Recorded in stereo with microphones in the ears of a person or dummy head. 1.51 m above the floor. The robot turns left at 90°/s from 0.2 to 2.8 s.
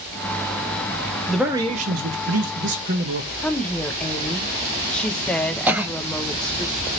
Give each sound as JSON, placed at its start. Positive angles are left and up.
{"t": 1.3, "sound": "a man speaking", "azimuth_deg": 5, "distance_m": 0.6}
{"t": 3.4, "sound": "a woman speaking", "side_deg": 10, "distance_m": 0.6}
{"t": 5.7, "sound": "a cough", "side_deg": -5, "distance_m": 0.6}